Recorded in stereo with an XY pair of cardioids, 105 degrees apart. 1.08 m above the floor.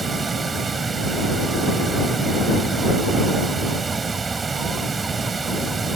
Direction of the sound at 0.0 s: 30° right.